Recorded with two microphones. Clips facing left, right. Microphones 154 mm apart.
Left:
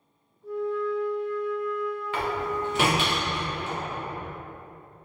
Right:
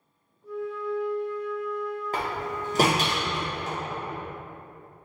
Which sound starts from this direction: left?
A flute, at 0.4 s.